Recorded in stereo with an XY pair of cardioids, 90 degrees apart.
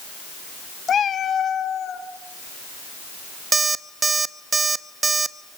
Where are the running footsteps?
No running footsteps in this recording.